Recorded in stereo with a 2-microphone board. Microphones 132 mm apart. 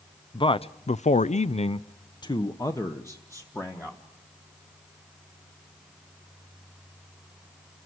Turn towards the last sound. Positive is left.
turn(degrees=15)  # may be behind; listen again after turning